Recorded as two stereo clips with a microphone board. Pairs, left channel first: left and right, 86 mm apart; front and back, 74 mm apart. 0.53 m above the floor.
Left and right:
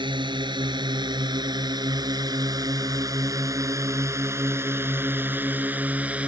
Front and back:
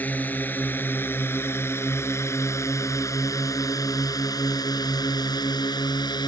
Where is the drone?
65° right; by 6.3 s 15° right.